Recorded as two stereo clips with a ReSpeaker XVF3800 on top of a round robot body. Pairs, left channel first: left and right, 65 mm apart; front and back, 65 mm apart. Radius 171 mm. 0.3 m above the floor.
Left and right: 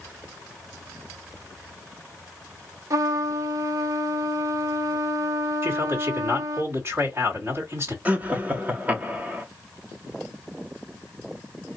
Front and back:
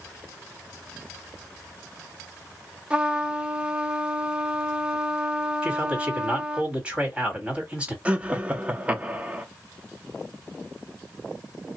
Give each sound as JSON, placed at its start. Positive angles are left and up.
{"t": 2.9, "sound": "a trumpet", "azimuth_deg": -110, "distance_m": 0.8}
{"t": 5.6, "sound": "a man speaking", "azimuth_deg": -115, "distance_m": 2.0}
{"t": 8.1, "sound": "laughter", "azimuth_deg": -130, "distance_m": 1.1}